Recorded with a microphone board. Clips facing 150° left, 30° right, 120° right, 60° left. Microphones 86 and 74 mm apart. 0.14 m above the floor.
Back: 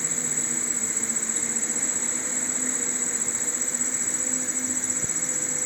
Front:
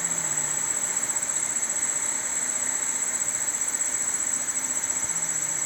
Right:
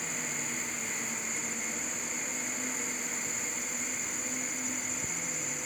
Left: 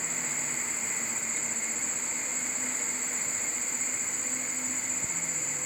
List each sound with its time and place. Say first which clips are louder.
0.0 s an insect: even, even; 160° left, 0.9 m